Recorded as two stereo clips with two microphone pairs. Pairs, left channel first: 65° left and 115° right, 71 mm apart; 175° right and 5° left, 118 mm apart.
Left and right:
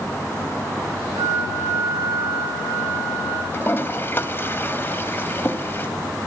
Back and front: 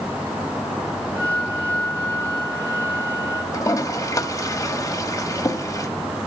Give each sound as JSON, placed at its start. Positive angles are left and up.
{"t": 1.1, "sound": "a flute", "azimuth_deg": -65, "distance_m": 9.5}
{"t": 3.5, "sound": "a toilet flushing", "azimuth_deg": 125, "distance_m": 1.8}